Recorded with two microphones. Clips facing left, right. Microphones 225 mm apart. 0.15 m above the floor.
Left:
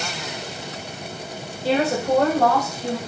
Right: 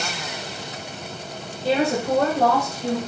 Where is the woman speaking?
5° left (ahead or behind), 1.1 m; by 3.0 s 50° right (ahead or behind), 1.6 m.